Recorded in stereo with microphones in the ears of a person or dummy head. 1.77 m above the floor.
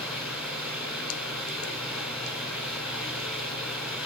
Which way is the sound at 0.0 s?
5° right (ahead or behind).